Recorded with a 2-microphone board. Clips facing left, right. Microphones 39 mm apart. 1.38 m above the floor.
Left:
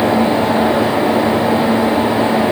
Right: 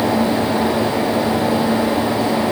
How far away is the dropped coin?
I don't hear a dropped coin.